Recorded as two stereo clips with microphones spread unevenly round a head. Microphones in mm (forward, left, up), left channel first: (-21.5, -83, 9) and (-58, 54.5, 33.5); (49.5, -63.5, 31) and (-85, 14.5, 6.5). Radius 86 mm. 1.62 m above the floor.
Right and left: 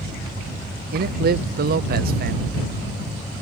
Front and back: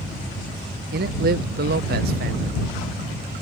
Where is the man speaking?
125° left.